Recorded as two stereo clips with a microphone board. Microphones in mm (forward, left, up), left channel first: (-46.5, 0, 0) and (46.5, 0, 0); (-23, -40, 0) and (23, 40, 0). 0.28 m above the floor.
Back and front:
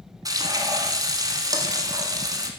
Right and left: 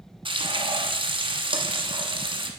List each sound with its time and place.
0.2 s frying: 45° left, 1.2 m